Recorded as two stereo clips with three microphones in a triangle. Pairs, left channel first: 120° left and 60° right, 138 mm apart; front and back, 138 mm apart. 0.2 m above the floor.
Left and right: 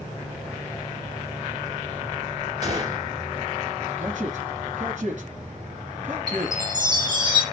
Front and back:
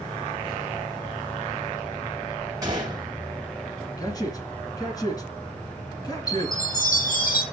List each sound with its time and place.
2.6 s a gunshot: 120° right, 2.5 m
4.0 s a man speaking: 60° right, 2.5 m
6.3 s a chime: straight ahead, 3.5 m